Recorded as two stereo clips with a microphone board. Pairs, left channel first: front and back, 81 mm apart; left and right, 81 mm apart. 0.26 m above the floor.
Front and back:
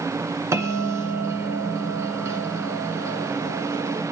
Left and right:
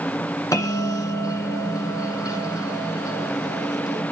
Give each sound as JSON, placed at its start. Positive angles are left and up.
{"t": 0.5, "sound": "a bell", "azimuth_deg": 135, "distance_m": 1.9}